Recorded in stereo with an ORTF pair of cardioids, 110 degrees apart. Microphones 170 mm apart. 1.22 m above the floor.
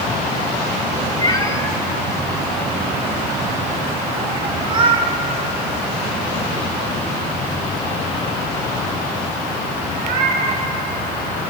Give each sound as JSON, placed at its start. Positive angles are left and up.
{"t": 1.2, "sound": "a cat meowing", "azimuth_deg": 25, "distance_m": 2.0}